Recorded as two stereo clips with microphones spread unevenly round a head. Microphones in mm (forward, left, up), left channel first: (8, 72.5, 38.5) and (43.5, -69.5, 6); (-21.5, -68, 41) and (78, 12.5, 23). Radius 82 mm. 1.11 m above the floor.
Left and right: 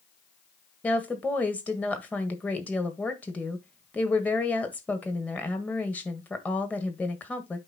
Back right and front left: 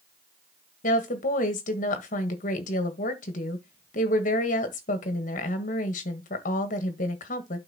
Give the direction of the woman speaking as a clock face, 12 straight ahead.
6 o'clock.